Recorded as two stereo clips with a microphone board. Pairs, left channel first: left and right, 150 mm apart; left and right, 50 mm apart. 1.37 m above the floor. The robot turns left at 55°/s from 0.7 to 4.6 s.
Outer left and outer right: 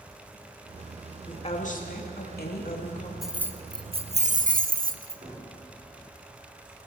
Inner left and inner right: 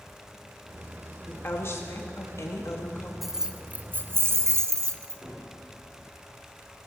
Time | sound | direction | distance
1.3 | a woman speaking | 150° left | 2 m
3.2 | keys jangling | straight ahead | 0.7 m
5.2 | a gunshot | 50° right (ahead or behind) | 5 m